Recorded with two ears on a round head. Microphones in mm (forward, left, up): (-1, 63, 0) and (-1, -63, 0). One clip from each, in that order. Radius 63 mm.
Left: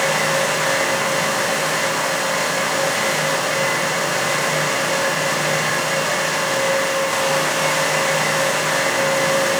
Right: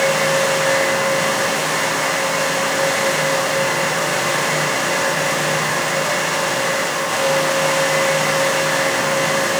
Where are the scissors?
I don't hear scissors.